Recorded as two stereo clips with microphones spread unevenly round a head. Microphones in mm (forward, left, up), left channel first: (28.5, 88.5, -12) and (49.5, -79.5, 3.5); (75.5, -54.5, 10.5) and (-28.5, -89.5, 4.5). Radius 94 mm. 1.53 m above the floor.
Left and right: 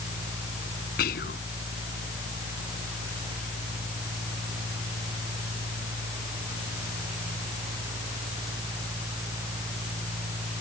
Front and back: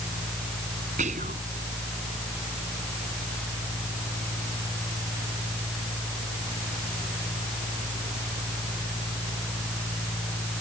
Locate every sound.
1.0 s whispering: 145° left